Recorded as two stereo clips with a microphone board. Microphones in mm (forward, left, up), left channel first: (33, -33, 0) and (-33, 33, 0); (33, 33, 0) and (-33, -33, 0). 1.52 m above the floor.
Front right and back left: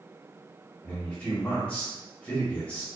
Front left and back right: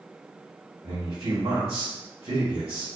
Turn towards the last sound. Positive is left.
turn(degrees=-120)